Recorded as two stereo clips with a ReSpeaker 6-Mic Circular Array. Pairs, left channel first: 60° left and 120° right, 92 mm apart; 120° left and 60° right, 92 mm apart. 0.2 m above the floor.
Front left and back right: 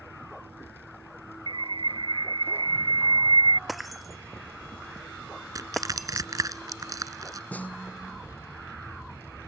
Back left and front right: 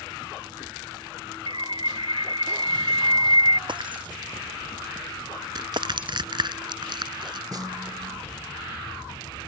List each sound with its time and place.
1.5 s a bird: 90° right
3.7 s breaking glass: 30° right
5.5 s crushing: 75° right
7.5 s a snare drum: 15° right